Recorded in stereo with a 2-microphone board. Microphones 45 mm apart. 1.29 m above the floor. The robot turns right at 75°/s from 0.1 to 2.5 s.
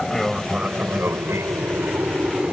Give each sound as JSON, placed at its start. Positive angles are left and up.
{"t": 0.0, "sound": "an aircraft", "side_deg": 10}